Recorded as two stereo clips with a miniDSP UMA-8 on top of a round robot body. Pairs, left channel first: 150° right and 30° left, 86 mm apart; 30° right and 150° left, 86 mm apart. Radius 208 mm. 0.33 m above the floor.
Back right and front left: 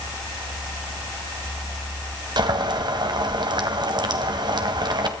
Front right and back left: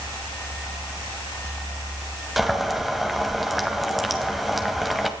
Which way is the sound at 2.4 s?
60° left.